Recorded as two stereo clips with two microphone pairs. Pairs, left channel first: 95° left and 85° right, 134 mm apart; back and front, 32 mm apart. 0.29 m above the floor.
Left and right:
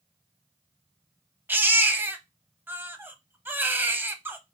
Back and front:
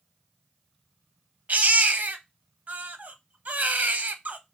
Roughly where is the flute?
I don't hear a flute.